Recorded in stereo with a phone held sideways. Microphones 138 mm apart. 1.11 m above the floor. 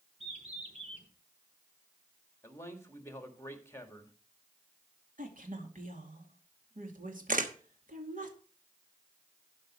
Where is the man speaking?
20° left (ahead or behind), 1.9 m.